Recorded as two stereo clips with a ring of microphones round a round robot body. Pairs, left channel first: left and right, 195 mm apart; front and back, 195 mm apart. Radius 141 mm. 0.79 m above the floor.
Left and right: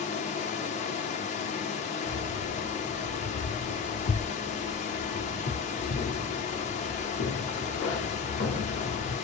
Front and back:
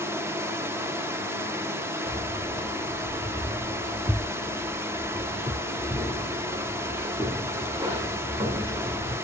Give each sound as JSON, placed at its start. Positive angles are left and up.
{"t": 0.0, "sound": "running water", "azimuth_deg": 110, "distance_m": 0.8}
{"t": 2.1, "sound": "keys jangling", "azimuth_deg": 120, "distance_m": 1.8}